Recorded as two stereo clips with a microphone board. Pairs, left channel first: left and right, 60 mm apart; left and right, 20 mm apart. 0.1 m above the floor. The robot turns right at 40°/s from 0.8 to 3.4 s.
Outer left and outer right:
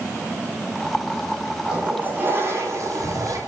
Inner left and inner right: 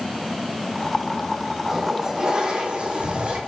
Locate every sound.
1.7 s a toilet flushing: 160° right, 6 m; by 3.4 s 95° right, 6 m